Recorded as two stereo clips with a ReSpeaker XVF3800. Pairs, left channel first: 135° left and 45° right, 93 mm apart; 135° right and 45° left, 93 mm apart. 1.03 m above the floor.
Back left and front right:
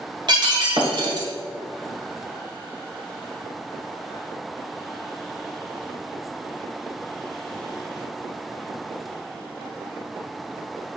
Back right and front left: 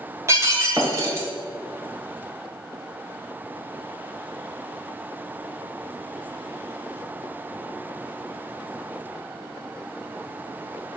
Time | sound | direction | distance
0.3 | breaking glass | 15° right | 1.9 m